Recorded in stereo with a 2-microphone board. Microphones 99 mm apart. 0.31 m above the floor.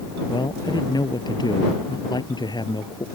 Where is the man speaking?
45° left (ahead or behind).